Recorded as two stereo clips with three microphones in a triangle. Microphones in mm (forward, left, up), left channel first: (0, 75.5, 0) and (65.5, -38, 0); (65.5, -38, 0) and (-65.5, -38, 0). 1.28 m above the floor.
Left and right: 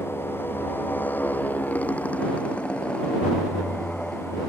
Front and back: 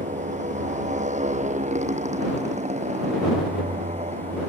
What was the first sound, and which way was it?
A motorcycle, 170° right.